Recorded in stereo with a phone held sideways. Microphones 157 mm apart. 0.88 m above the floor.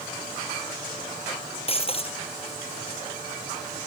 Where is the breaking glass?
40° left (ahead or behind).